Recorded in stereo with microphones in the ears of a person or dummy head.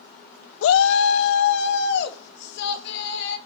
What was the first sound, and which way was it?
A shout, 85° left.